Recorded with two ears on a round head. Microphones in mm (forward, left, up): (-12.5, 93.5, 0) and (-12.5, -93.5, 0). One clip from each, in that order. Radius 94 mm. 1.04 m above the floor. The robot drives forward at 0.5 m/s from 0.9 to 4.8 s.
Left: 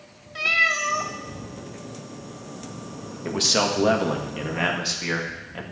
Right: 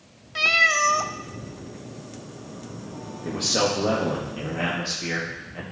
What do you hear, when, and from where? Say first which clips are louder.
0.3 s a cat meowing: right 2 dB; 20° right (ahead or behind), 0.5 m
3.2 s a man speaking: left 2 dB; 65° left (ahead or behind), 1.5 m; by 5.6 s 50° left (ahead or behind), 1.8 m